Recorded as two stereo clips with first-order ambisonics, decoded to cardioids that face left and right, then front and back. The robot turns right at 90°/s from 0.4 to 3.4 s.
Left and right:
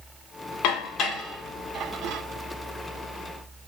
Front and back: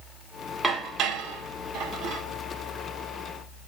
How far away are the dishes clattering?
About 1.3 m.